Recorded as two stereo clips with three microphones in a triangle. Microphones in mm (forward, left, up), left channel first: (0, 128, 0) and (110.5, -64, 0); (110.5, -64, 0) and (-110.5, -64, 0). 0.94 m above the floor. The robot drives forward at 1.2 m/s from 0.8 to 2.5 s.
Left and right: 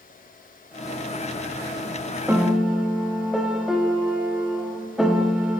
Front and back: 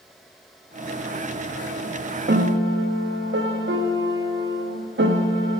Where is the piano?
140° right, 0.8 m; by 5.6 s 150° right, 1.0 m.